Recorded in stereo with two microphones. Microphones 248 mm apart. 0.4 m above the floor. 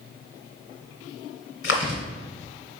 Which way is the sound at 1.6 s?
55° left (ahead or behind).